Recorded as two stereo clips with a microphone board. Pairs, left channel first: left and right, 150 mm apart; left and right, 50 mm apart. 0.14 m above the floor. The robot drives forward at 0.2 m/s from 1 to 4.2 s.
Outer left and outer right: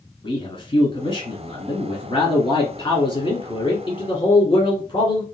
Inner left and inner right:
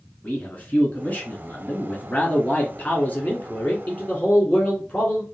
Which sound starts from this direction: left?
A man speaking, at 0.2 s.